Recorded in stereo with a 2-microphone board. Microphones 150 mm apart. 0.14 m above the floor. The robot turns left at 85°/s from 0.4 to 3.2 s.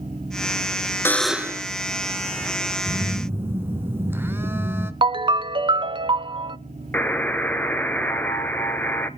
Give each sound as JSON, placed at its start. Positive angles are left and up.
{"t": 1.1, "sound": "a buzzer", "azimuth_deg": 20, "distance_m": 0.6}
{"t": 2.9, "sound": "a phone buzzing", "side_deg": -25, "distance_m": 1.3}
{"t": 5.0, "sound": "a ringtone", "side_deg": -35, "distance_m": 0.6}
{"t": 6.9, "sound": "a buzzer", "side_deg": 10, "distance_m": 1.0}